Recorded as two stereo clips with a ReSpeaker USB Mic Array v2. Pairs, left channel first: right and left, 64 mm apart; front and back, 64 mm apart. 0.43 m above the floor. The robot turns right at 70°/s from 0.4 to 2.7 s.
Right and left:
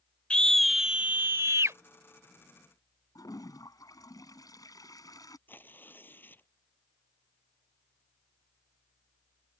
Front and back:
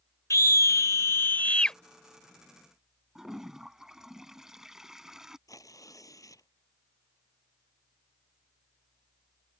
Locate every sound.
0.3 s a scream: 15° right; by 1.8 s 80° left
3.1 s a toilet flushing: 100° right
5.5 s tearing paper: 30° right